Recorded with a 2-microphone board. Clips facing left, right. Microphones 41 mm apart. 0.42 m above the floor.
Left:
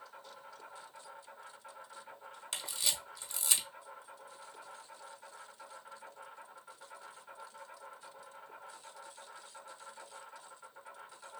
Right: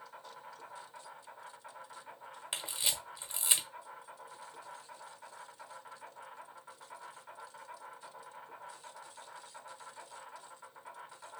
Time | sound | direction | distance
0.0 | an insect | 20° right (ahead or behind) | 1.9 m
2.5 | a camera shutter | 25° right (ahead or behind) | 1.1 m